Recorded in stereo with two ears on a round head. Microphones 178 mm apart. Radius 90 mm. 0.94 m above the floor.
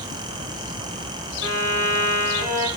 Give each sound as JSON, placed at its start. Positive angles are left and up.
{"t": 1.4, "sound": "a violin", "side_deg": -60, "distance_m": 1.9}